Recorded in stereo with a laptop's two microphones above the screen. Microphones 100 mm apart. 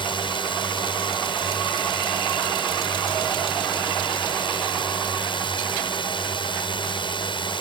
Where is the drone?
60° left (ahead or behind).